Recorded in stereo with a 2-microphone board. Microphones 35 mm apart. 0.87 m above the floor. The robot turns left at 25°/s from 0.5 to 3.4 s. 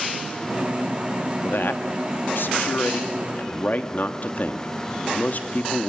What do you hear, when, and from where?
1.4 s a man speaking: 105° left, 1.0 m; by 5.9 s 55° left, 1.0 m